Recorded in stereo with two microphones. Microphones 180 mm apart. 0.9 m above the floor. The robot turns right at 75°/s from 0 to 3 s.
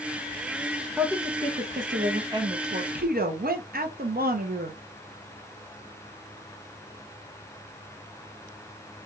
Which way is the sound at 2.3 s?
155° right.